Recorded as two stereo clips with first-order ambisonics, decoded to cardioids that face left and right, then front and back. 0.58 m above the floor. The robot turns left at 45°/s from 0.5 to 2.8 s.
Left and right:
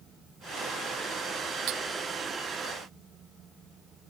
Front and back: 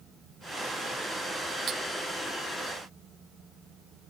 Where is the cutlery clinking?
120° right; by 1.8 s 125° right.